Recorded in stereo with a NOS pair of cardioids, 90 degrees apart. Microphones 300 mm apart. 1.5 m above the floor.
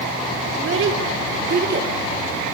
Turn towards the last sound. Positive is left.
turn(degrees=-30)